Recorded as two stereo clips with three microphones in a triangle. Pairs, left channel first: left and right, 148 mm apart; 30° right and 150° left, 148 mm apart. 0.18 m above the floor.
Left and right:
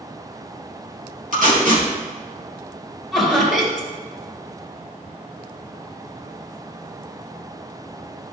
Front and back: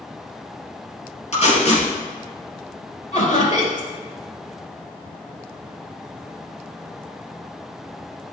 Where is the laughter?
Straight ahead, 2.5 m.